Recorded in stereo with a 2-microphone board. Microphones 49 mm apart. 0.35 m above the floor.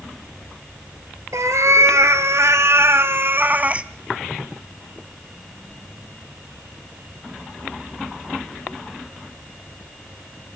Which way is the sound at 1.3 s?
75° right (ahead or behind).